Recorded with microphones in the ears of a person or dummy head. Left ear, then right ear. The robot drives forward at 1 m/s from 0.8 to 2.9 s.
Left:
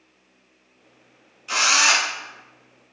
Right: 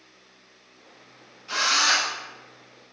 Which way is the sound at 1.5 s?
25° left (ahead or behind).